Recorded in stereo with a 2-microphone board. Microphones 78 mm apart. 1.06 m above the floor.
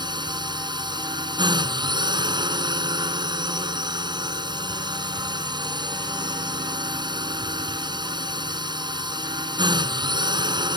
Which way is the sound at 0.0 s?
70° right (ahead or behind).